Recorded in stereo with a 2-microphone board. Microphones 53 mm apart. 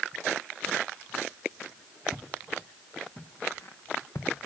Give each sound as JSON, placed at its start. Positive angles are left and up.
{"t": 2.1, "sound": "footsteps", "side_deg": -5, "distance_m": 1.4}